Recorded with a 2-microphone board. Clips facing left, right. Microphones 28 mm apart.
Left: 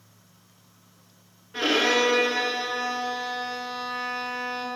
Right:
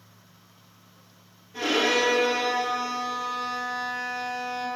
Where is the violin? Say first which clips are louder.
Left 1 dB; 50° left (ahead or behind), 1.2 m.